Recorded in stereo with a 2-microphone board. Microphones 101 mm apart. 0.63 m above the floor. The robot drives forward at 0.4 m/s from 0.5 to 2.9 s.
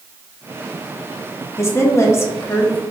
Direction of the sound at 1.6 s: 30° left (ahead or behind).